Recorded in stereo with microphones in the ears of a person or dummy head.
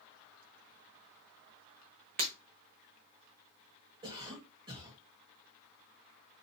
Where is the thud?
No thud in this recording.